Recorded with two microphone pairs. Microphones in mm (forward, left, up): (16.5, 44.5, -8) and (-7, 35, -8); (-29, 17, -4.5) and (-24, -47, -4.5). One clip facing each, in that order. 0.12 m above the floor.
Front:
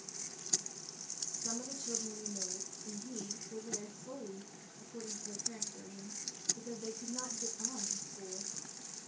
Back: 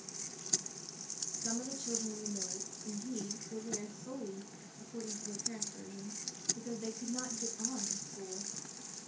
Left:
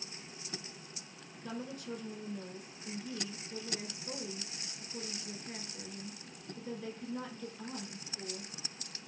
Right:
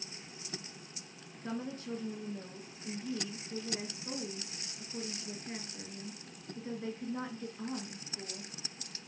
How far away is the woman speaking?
About 1.4 m.